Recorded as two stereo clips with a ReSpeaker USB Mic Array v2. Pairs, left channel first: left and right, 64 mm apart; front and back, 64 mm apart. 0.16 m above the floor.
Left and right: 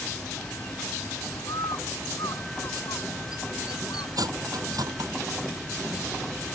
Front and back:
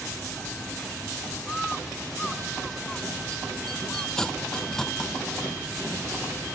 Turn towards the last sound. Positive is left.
turn(degrees=-80)